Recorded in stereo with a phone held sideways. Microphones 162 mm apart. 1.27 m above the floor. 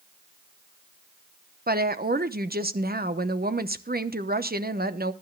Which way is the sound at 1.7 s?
70° right (ahead or behind).